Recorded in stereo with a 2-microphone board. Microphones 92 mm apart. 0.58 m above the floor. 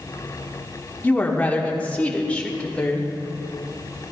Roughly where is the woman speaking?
Centre.